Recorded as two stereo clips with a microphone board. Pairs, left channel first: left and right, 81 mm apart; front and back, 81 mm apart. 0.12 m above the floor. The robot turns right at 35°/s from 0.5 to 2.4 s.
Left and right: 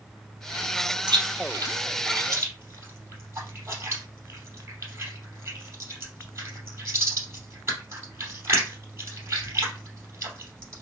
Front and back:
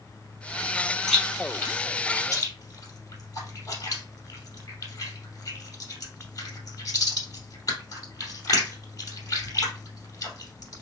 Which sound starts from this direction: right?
Chewing, at 1.1 s.